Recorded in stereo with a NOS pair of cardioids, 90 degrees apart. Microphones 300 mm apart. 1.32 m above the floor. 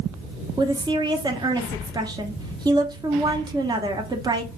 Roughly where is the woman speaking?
Ahead.